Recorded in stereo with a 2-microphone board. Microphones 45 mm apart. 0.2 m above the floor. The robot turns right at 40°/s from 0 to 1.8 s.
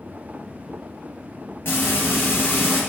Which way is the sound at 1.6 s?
60° left (ahead or behind).